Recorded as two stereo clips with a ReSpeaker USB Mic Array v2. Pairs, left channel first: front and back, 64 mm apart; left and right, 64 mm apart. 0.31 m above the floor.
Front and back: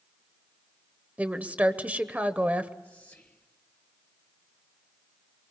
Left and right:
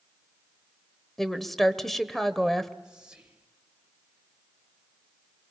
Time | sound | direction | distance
1.2 | a woman speaking | 170° left | 1.0 m
2.8 | whispering | 30° right | 1.1 m